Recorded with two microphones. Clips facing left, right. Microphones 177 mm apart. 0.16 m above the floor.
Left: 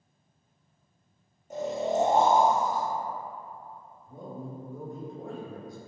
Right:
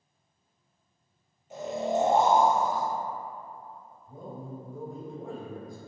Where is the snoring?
45° left (ahead or behind), 0.9 m.